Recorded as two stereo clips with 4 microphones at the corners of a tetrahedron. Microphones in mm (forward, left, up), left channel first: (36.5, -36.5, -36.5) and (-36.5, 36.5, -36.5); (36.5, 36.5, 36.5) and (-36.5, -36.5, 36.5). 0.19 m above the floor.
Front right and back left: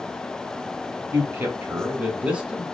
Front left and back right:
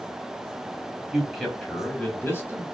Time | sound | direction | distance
1.1 | a man speaking | 150° left | 1.6 m